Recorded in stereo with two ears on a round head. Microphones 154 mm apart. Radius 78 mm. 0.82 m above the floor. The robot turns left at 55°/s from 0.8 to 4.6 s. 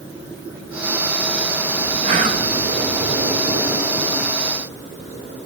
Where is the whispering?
40° right (ahead or behind), 1.0 m; by 2.5 s 45° right (ahead or behind), 1.0 m.